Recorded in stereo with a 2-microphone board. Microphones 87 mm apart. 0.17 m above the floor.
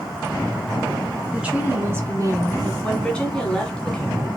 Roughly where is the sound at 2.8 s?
Centre.